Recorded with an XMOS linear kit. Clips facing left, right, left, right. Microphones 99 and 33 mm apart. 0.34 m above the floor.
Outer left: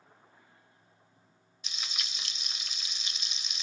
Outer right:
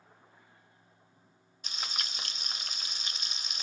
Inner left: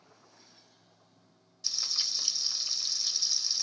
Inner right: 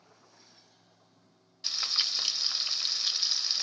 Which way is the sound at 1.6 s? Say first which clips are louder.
Outer right 4 dB, inner right 4 dB; 45° right (ahead or behind).